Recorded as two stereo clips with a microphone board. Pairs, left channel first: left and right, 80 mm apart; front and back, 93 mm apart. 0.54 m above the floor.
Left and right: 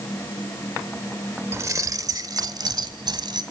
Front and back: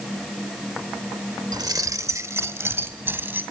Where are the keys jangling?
140° right, 0.9 m; by 3.4 s 110° right, 2.5 m.